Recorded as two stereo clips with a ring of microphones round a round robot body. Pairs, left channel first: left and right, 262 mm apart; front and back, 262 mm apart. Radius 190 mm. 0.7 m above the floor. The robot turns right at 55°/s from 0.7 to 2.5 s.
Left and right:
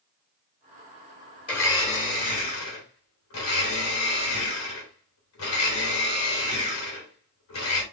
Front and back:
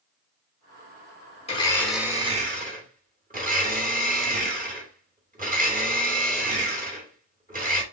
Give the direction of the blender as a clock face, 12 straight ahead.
10 o'clock.